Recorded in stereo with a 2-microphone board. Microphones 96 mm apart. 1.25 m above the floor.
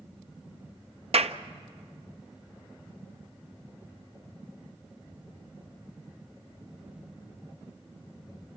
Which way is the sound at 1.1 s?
75° right (ahead or behind).